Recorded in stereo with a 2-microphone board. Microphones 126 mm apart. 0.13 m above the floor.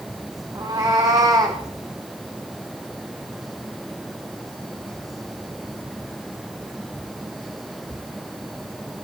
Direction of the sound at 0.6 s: 30° right (ahead or behind).